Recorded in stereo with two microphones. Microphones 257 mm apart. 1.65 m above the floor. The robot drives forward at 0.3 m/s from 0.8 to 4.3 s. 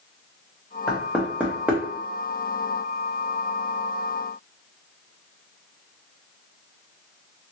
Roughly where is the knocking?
Centre.